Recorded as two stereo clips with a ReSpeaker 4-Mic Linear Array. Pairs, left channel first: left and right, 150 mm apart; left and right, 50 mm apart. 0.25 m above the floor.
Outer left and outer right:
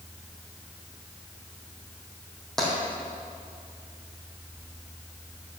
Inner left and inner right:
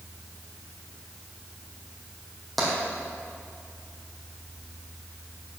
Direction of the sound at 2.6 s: 5° left (ahead or behind).